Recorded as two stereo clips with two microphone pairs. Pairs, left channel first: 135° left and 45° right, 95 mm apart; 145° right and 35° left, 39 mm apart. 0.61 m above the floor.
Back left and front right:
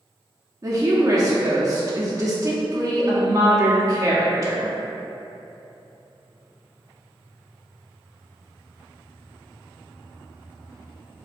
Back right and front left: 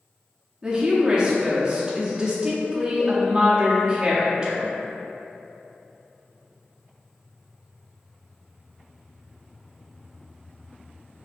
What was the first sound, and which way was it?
A woman speaking, 20° right.